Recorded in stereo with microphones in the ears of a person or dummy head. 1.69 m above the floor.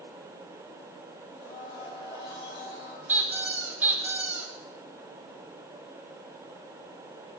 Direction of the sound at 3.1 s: 10° right (ahead or behind).